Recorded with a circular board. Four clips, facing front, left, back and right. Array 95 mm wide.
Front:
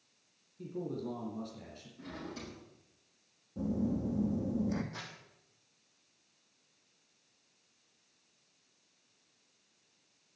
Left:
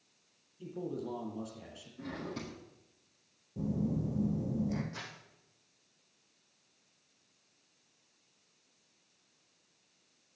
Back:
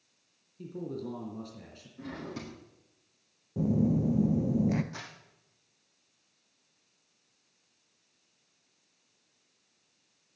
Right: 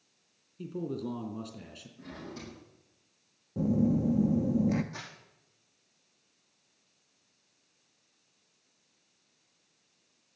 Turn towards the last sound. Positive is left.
turn(degrees=-155)